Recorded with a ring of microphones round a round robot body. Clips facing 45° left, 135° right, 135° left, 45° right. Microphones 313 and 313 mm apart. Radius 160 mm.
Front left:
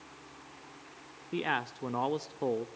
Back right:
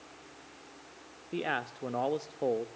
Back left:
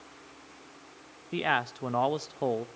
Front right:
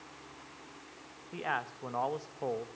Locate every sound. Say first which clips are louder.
1.3 s a man speaking: even, back left 8 dB; 120° left, 0.8 m